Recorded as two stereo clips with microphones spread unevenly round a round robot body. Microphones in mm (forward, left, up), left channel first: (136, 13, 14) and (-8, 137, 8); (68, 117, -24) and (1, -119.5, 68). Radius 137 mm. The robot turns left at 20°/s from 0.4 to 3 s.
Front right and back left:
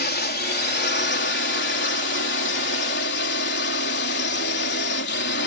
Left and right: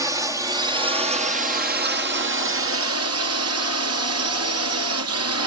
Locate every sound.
0.0 s a drone: 20° right; by 5.5 s 70° right